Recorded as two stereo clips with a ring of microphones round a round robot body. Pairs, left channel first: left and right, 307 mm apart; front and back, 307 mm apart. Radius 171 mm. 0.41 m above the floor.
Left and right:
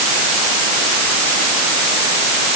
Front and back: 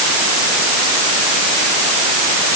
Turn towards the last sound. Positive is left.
No sound to turn to.